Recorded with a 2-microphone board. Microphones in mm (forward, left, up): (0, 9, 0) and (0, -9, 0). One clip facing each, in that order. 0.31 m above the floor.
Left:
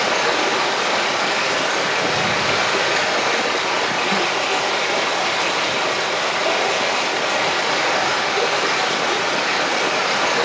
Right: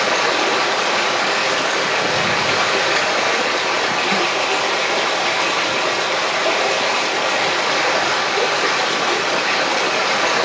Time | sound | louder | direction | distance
0.0 | running water | right 1 dB | 15° right (ahead or behind) | 3 m